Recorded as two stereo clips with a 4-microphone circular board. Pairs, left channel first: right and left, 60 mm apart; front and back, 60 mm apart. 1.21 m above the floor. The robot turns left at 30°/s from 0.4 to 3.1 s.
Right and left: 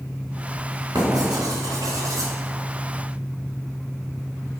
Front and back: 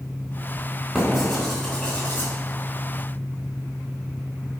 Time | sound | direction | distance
0.9 | writing | 100° left | 3.5 m